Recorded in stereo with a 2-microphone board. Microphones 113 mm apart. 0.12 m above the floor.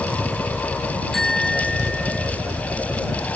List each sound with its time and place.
0.0 s a helicopter: 25° right (ahead or behind); by 3.4 s 10° right (ahead or behind)
1.1 s a bicycle bell: 5° left (ahead or behind)